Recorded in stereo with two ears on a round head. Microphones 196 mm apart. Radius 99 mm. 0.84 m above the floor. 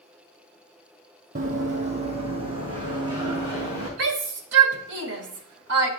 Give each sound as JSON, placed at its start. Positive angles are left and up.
{"t": 1.4, "sound": "running footsteps", "side_deg": -40, "distance_m": 1.7}
{"t": 4.0, "sound": "a shout", "side_deg": -55, "distance_m": 1.7}